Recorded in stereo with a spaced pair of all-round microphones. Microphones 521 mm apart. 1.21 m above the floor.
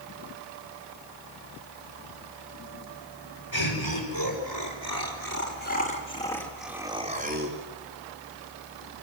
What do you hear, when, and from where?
3.5 s laughter: 55° left (ahead or behind), 6 m; by 7.6 s 30° right (ahead or behind), 3 m